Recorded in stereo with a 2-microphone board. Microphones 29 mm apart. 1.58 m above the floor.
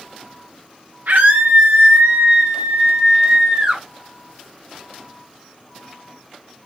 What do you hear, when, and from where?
1.1 s a scream: 75° right (ahead or behind), 1.1 m; by 3.8 s 30° right (ahead or behind), 2.0 m